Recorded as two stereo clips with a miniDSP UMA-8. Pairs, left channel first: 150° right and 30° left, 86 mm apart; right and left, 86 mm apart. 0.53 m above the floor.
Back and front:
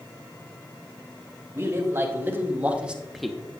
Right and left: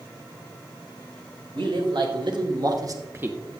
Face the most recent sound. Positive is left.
turn(degrees=140)